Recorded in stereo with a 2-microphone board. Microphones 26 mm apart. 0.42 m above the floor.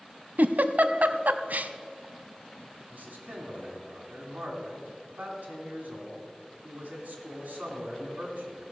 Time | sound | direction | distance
0.4 | a giggle | 75° right (ahead or behind) | 0.6 m
2.9 | a man speaking | 75° right (ahead or behind) | 3.5 m